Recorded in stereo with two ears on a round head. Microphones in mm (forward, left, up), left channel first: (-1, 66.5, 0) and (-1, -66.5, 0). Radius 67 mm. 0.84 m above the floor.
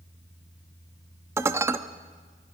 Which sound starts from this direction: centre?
Dishes clattering, at 1.4 s.